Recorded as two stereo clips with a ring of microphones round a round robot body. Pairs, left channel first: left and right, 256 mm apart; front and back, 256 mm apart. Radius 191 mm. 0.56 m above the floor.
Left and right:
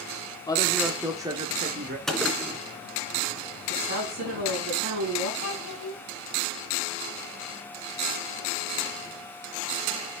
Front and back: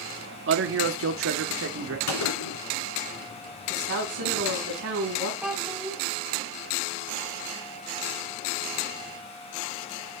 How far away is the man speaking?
About 1.1 m.